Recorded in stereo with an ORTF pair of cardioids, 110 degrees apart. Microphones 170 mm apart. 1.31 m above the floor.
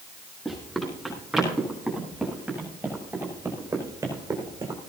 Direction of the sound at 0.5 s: Straight ahead.